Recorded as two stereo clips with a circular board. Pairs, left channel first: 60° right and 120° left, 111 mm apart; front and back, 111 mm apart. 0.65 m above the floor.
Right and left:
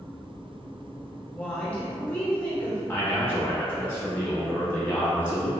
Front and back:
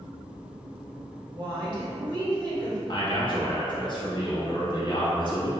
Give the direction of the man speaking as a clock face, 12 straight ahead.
12 o'clock.